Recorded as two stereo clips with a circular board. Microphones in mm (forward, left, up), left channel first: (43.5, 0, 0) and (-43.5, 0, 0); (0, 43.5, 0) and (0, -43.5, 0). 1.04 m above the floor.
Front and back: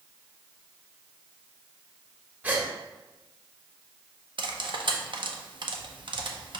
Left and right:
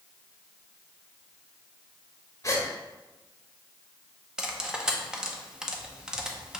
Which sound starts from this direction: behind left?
A gasp, at 2.4 s.